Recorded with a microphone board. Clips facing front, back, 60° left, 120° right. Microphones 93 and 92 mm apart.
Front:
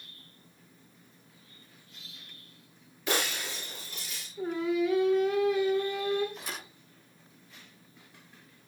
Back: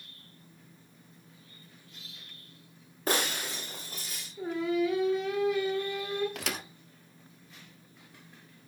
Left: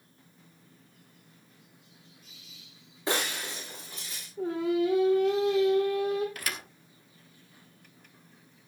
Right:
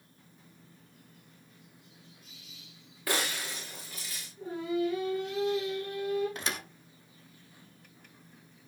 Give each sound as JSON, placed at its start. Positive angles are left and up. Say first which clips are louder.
{"t": 3.1, "sound": "breaking glass", "louder": "back 1 dB, left 2 dB", "azimuth_deg": 130, "distance_m": 7.0}
{"t": 4.4, "sound": "singing", "louder": "even, left 4 dB", "azimuth_deg": 90, "distance_m": 5.5}
{"t": 6.3, "sound": "a thud", "louder": "back 4 dB, right 1 dB", "azimuth_deg": 175, "distance_m": 1.8}